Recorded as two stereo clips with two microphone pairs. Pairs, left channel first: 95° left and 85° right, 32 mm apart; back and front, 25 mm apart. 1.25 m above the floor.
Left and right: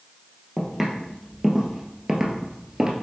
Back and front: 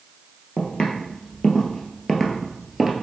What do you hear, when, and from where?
0.6 s footsteps: 175° right, 1.7 m; by 2.9 s 90° right, 1.3 m